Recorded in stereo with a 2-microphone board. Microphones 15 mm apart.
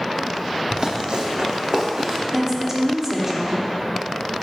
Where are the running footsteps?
50° right (ahead or behind), 0.9 m; by 2.2 s 70° right (ahead or behind), 2 m.